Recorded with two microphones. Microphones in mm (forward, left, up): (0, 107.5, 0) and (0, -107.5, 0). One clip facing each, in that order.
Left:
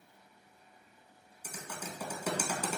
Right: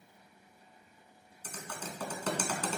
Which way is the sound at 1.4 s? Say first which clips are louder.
Even; 10° left (ahead or behind).